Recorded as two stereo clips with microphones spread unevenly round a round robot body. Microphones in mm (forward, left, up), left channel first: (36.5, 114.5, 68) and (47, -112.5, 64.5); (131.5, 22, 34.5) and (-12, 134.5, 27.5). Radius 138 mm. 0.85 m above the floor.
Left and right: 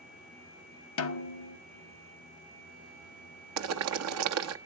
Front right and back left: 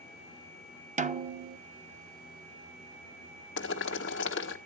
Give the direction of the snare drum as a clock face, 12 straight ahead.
9 o'clock.